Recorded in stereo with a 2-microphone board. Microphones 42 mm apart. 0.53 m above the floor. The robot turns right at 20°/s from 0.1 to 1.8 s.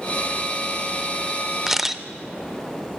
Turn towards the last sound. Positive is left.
turn(degrees=-5)  # may be behind; listen again after turning